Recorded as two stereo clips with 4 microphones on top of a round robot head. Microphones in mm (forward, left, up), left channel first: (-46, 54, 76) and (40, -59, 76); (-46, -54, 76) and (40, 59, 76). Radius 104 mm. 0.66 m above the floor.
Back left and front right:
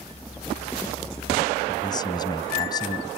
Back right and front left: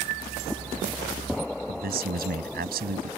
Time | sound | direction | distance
1.7 | a man speaking | 65° left | ?